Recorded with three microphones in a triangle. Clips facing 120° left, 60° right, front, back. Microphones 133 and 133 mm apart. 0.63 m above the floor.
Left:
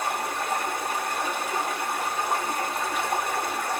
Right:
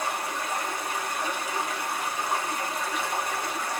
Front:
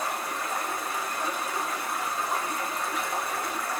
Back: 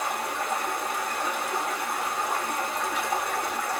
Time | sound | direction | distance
0.0 | running water | 155° left | 0.7 m